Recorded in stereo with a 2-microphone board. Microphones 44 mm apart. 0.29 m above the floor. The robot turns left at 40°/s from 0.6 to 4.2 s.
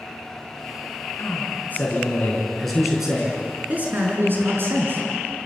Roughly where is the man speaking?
Ahead left.